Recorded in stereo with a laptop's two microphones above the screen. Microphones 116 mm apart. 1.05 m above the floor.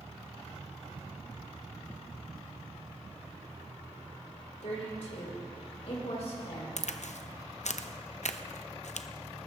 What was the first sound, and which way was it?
A woman speaking, 70° left (ahead or behind).